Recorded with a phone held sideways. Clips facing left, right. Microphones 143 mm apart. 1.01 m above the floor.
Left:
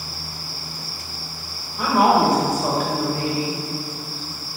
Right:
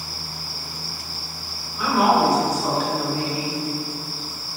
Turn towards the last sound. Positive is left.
turn(degrees=30)  # may be behind; listen again after turning